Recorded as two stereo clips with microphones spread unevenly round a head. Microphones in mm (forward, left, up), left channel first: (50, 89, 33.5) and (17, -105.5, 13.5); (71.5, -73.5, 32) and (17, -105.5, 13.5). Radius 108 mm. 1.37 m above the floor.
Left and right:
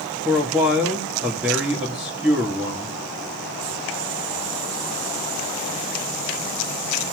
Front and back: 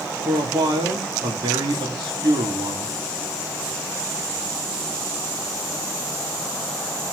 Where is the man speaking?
175° left, 2 m.